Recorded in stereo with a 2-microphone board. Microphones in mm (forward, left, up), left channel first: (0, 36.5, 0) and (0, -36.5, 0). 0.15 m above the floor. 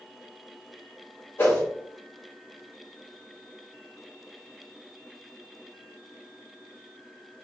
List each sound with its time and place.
1.4 s a whoosh: 35° left (ahead or behind), 1.5 m